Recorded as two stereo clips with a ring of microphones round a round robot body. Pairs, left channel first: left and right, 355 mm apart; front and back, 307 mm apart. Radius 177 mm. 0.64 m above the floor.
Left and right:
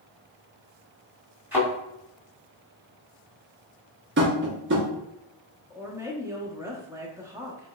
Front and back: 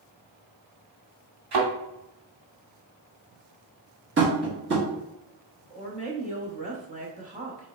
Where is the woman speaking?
160° right, 0.8 m.